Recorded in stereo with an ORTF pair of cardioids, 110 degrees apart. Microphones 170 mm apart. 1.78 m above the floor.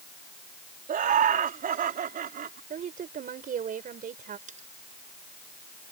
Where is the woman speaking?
50° right.